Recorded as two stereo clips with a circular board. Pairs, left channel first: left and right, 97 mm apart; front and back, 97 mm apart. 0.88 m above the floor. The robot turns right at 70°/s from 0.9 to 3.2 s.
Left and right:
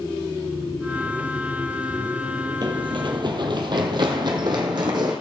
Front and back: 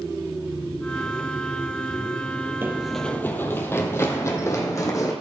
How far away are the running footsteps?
About 1.4 m.